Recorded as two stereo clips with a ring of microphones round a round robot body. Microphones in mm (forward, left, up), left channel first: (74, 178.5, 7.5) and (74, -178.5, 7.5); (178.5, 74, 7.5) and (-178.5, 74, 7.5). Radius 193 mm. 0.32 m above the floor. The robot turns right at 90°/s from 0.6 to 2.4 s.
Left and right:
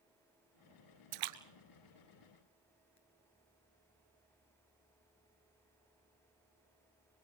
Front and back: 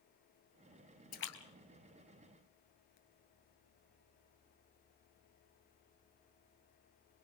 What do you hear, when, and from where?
1.1 s a splash: 70° right, 1.6 m; by 3.0 s 45° left, 1.6 m